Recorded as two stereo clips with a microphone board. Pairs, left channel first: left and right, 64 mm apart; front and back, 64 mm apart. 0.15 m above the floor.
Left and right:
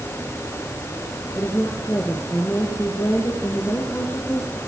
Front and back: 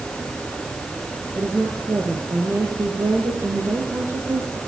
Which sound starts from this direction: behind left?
A woman speaking, at 1.4 s.